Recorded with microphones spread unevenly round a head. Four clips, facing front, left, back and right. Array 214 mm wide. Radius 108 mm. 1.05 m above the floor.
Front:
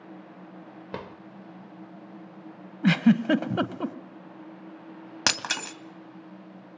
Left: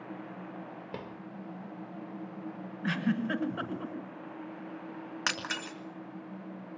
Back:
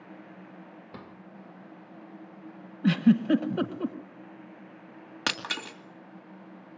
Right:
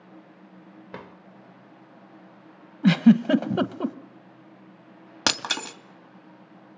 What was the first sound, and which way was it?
A drawer, 10° left.